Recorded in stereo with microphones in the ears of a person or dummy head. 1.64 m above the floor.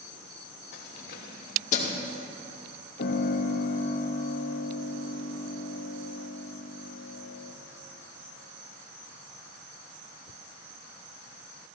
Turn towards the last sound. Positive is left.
turn(degrees=55)  # may be behind; listen again after turning